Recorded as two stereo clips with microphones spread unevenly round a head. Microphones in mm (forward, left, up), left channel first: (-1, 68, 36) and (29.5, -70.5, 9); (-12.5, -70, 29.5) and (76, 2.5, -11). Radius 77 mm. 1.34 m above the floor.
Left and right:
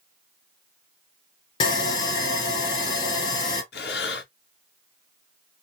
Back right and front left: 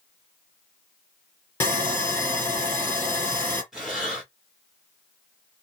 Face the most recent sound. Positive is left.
turn(degrees=125)